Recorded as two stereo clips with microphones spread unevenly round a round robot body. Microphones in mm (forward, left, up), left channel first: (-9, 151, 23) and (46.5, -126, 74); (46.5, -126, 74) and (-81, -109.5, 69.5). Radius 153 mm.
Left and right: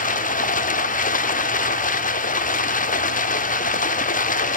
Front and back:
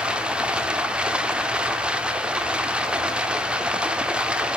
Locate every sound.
0.0 s running water: 100° left, 0.8 m